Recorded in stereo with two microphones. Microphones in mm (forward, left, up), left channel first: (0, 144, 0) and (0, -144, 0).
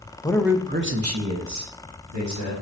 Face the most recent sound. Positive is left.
turn(degrees=-80)